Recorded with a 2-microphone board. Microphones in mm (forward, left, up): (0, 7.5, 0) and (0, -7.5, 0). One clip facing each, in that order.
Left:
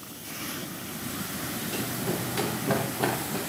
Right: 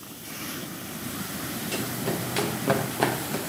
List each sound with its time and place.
1.7 s running footsteps: 80° right, 5 m; by 3.4 s 85° right, 6 m